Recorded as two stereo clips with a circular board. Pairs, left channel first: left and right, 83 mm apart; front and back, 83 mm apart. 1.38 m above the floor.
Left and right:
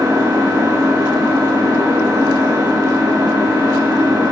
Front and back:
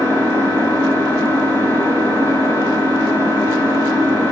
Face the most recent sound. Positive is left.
turn(degrees=-60)